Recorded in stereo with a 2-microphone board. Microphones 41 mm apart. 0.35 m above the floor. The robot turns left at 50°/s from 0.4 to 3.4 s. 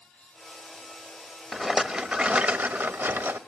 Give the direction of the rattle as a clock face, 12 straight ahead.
12 o'clock.